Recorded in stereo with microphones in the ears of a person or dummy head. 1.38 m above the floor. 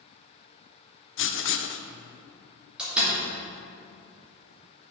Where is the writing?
55° left (ahead or behind), 0.5 m.